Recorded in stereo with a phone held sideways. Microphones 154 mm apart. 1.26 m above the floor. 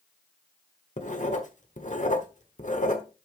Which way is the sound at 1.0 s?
50° left (ahead or behind).